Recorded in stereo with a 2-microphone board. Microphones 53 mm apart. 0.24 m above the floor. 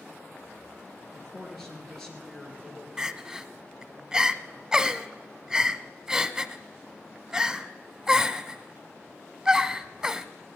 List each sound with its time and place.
1.1 s a man speaking: 10° left (ahead or behind), 4.5 m
3.0 s crying: 15° right (ahead or behind), 0.6 m